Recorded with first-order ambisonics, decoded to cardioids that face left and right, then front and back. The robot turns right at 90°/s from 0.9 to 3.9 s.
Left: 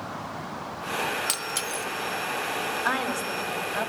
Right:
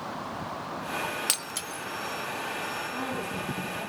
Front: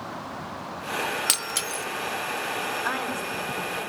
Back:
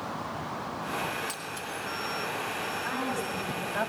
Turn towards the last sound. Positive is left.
turn(degrees=145)